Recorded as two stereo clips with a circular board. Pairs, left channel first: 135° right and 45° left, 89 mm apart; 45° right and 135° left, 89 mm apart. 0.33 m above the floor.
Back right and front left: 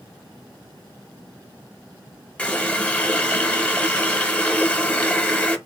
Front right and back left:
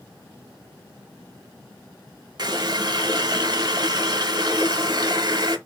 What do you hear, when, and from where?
2.4 s a running tap: 155° left, 1.0 m